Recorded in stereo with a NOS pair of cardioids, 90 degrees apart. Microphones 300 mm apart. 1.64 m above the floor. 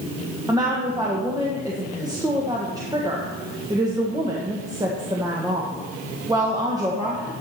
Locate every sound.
0.5 s a woman speaking: 10° right, 1.6 m